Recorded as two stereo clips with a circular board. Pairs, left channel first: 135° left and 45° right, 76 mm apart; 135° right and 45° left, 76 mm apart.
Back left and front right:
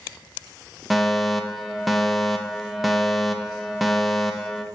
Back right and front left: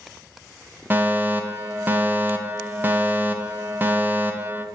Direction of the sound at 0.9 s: 40° left.